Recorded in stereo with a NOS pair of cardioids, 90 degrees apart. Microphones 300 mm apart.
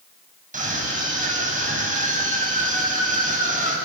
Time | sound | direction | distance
0.5 | a scream | 25° right | 9.5 m